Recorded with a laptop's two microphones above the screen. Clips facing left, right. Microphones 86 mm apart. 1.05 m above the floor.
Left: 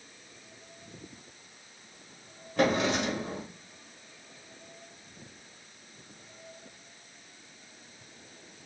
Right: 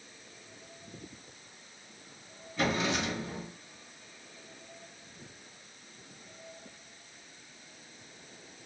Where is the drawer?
75° left (ahead or behind), 1.5 m.